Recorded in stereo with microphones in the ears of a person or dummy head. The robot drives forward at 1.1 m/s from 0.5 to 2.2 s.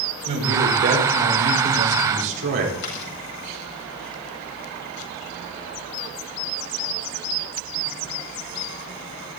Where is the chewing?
70° left (ahead or behind), 8.5 m.